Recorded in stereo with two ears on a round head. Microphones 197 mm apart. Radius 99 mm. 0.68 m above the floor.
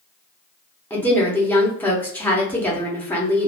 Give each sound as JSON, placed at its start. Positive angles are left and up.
{"t": 0.9, "sound": "a woman speaking", "side_deg": 10, "distance_m": 1.0}